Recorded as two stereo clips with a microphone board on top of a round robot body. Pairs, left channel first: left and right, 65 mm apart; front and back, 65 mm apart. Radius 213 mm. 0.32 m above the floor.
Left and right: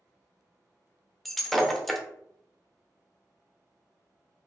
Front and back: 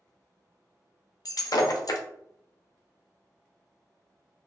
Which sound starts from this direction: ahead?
Breaking glass, at 1.2 s.